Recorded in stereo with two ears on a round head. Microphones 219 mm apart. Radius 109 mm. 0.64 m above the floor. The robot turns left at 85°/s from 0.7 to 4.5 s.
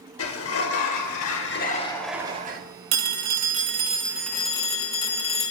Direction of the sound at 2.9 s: 70° right.